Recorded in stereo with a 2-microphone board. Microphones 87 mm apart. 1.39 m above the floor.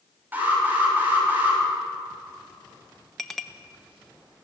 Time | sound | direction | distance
0.3 | an alarm | 20° right (ahead or behind) | 7 m
3.2 | a clink | 5° left (ahead or behind) | 1.0 m